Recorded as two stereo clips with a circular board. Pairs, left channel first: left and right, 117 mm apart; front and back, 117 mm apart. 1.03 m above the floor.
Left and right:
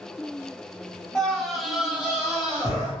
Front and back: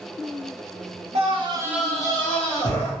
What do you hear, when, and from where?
1.1 s a scream: 175° left, 1.1 m; by 2.9 s 10° right, 1.6 m